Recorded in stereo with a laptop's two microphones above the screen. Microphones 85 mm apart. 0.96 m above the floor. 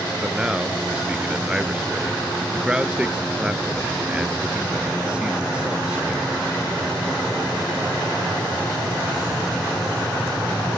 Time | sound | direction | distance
0.2 | a man speaking | 10° right (ahead or behind) | ?